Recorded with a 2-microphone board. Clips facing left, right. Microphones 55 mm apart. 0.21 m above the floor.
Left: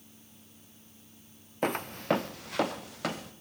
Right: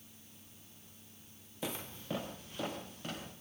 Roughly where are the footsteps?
Left.